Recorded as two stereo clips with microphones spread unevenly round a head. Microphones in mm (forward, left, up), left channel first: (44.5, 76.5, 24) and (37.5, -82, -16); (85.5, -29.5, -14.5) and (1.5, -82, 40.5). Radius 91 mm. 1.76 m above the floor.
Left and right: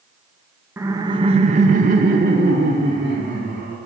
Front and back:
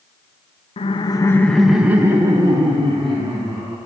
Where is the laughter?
10° right, 0.7 m; by 3.8 s 150° right, 1.9 m.